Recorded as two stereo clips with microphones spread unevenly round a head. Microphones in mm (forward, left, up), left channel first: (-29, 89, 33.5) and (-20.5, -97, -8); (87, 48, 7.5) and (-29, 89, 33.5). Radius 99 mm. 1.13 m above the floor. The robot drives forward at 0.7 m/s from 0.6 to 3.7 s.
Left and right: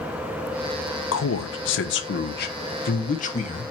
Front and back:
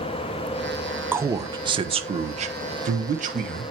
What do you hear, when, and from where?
1.1 s a man speaking: 80° left, 1.1 m; by 3.6 s 150° left, 2.0 m